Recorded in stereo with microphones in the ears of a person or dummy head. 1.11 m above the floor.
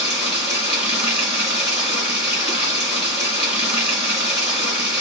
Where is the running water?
5° right (ahead or behind), 2 m.